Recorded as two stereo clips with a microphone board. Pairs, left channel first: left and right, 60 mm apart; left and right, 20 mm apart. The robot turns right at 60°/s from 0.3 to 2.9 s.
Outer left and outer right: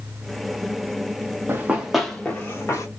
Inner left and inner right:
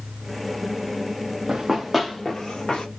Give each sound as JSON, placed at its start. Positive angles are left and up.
{"t": 1.5, "sound": "running footsteps", "side_deg": -35, "distance_m": 0.7}